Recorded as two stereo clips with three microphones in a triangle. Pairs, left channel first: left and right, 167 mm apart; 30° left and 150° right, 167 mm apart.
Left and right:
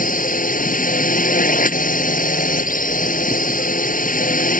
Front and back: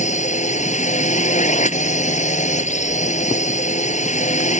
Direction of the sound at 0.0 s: 65° left.